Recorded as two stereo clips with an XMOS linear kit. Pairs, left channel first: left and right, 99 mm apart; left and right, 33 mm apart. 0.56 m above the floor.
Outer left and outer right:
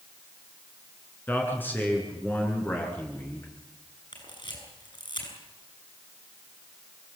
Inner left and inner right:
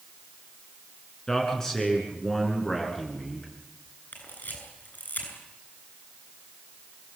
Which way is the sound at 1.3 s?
20° left (ahead or behind).